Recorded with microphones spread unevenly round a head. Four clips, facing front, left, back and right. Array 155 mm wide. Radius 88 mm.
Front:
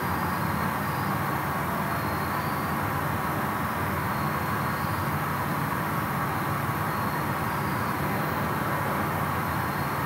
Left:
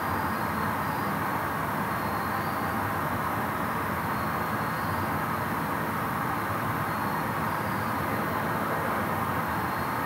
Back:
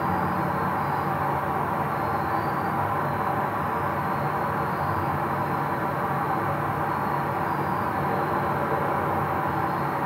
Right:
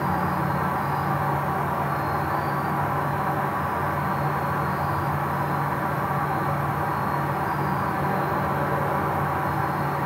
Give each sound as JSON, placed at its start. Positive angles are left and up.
{"t": 0.0, "sound": "an insect", "azimuth_deg": -155, "distance_m": 8.5}